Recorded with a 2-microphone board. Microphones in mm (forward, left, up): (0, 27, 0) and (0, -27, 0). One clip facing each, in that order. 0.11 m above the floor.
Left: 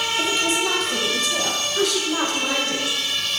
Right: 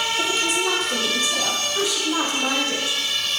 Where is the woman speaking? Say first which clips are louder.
Left 2 dB; centre (ahead or behind), 5 m; by 3.0 s 20° right (ahead or behind), 6 m.